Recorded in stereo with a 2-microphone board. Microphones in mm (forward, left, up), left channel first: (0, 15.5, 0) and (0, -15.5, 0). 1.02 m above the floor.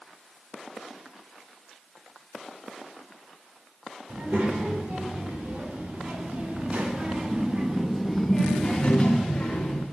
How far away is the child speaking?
About 3 m.